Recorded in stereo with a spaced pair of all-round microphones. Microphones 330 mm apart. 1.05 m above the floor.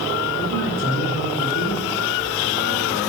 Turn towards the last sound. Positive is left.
turn(degrees=50)  # may be behind; listen again after turning